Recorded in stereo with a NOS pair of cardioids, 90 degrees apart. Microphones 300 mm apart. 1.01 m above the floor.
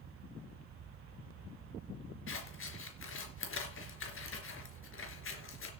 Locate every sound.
0.0 s a fan: 45° right, 1.0 m
2.3 s scissors: 45° left, 3.5 m